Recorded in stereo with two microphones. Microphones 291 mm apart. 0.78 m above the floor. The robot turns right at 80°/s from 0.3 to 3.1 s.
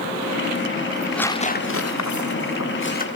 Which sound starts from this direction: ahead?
Tearing paper, at 0.9 s.